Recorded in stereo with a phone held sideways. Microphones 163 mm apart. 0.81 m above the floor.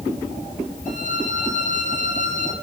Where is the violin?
55° left (ahead or behind), 8.5 m.